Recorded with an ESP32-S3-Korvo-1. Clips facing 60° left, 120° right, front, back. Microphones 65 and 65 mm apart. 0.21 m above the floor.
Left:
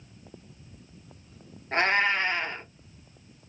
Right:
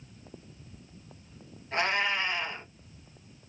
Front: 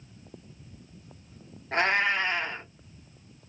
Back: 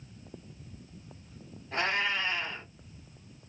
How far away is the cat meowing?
About 1.1 m.